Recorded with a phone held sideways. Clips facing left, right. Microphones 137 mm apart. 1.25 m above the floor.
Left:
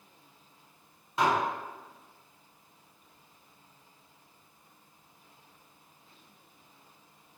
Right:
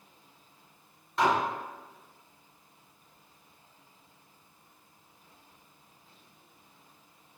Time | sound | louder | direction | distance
1.2 | dishes clattering | right 1 dB | 20° left (ahead or behind) | 1.6 m